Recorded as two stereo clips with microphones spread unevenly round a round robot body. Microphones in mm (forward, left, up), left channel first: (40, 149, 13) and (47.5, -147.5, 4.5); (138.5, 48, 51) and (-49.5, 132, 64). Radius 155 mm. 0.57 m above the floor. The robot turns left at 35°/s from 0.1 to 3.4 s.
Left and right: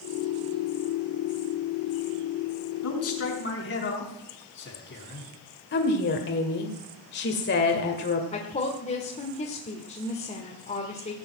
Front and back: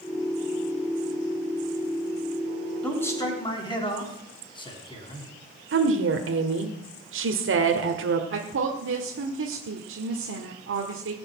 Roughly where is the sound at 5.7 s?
Behind left.